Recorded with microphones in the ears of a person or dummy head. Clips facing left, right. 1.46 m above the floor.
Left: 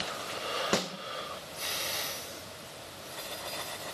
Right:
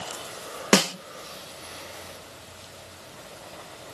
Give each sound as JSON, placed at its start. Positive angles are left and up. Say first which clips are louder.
{"t": 0.7, "sound": "a snare drum", "louder": "right 11 dB", "side_deg": -75, "distance_m": 0.6}